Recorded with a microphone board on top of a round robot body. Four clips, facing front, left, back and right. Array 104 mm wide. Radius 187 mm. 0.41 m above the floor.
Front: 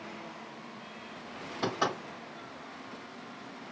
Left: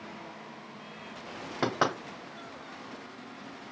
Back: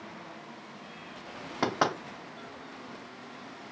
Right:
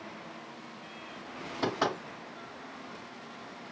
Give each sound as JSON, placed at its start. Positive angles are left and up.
{"t": 1.6, "sound": "knocking", "azimuth_deg": 135, "distance_m": 1.9}